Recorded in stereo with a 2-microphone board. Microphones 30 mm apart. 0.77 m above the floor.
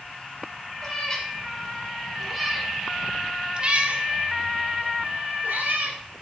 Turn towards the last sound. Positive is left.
turn(degrees=-85)